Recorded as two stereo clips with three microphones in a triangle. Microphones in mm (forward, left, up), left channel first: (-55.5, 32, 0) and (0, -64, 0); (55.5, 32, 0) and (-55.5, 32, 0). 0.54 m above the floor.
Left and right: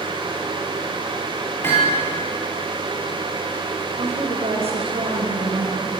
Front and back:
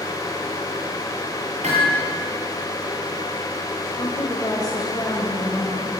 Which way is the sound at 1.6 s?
170° right.